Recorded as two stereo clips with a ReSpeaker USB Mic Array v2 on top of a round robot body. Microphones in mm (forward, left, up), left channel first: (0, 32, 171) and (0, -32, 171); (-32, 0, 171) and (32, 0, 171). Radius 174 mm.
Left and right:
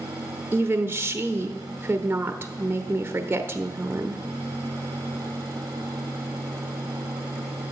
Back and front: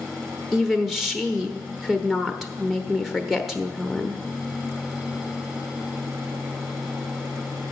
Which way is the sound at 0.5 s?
85° right.